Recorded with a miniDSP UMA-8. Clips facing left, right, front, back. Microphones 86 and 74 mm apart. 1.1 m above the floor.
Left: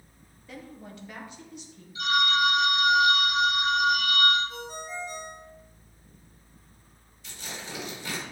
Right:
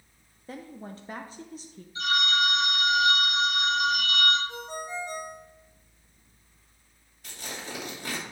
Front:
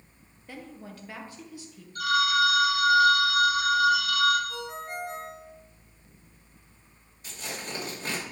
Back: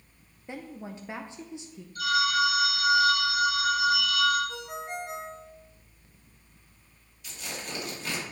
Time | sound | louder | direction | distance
0.5 | a woman speaking | right 3 dB, back 3 dB | 120° right | 0.5 m
1.9 | a phone ringing | left 2 dB, front 2 dB | 35° right | 3 m
4.5 | a ringtone | right 2 dB, even | 115° right | 1.8 m
7.2 | tearing paper | right 1 dB, front 1 dB | 50° right | 2.5 m